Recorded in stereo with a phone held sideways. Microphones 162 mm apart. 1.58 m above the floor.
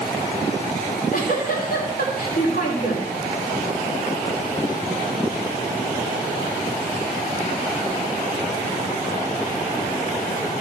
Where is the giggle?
60° left (ahead or behind), 2.5 m.